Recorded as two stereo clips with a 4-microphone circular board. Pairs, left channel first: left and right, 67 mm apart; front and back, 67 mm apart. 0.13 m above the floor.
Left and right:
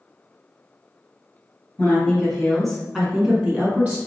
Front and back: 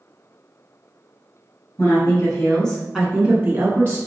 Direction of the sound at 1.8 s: 20° left.